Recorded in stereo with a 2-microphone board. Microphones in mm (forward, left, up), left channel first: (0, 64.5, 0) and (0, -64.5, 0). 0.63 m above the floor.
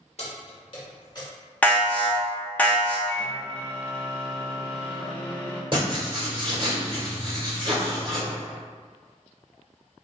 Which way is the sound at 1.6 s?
10° left (ahead or behind).